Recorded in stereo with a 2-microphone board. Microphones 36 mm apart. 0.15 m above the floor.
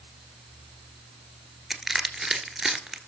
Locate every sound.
1.7 s crushing: centre (ahead or behind), 1.4 m